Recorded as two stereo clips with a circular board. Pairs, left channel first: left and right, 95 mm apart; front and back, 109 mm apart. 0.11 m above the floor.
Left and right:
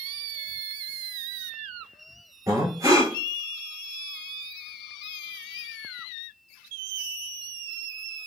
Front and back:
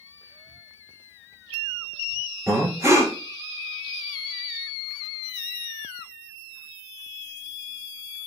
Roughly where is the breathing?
Behind right.